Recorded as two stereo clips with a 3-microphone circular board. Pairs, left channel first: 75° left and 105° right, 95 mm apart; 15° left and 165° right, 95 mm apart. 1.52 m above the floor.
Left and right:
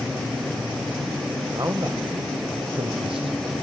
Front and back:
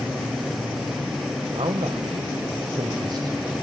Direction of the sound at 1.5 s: 160° right.